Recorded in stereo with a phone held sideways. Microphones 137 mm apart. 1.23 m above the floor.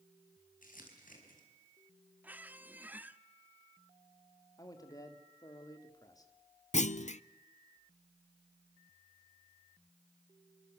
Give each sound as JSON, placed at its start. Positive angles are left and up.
{"t": 0.6, "sound": "crumpling", "side_deg": 85, "distance_m": 5.0}
{"t": 2.2, "sound": "a squeak", "side_deg": -15, "distance_m": 0.7}
{"t": 4.6, "sound": "a man speaking", "side_deg": 25, "distance_m": 2.5}
{"t": 6.7, "sound": "a clunk", "side_deg": 60, "distance_m": 0.6}